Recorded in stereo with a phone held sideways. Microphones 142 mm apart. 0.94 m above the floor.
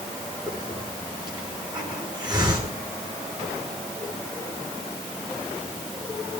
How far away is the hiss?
About 9 m.